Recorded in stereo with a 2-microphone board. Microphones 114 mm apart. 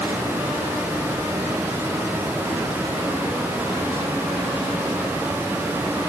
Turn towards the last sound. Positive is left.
No sound to turn to.